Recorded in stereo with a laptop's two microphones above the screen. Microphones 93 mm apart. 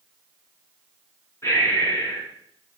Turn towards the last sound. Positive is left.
turn(degrees=30)  # may be behind; listen again after turning